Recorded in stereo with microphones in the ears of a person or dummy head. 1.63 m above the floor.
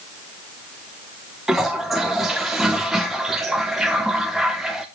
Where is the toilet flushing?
5° right (ahead or behind), 0.8 m.